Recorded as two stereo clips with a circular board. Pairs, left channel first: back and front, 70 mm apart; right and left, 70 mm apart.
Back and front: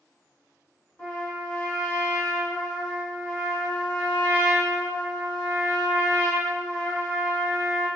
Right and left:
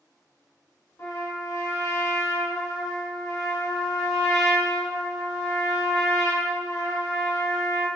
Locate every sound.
1.0 s a trumpet: 115° right, 1.2 m